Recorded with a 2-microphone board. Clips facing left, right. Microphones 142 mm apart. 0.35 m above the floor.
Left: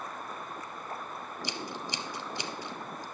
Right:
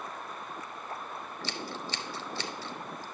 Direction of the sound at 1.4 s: 15° left (ahead or behind).